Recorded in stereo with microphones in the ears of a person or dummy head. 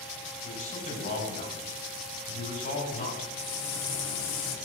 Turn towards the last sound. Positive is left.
turn(degrees=70)  # may be behind; listen again after turning